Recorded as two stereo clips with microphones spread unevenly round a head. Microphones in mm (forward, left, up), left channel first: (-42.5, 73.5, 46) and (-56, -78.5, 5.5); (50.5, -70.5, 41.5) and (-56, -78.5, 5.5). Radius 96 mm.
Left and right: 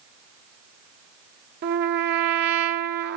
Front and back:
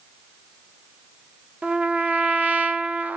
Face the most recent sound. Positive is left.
turn(degrees=-100)